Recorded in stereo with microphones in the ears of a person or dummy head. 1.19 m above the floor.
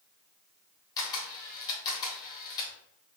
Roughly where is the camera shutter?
Left.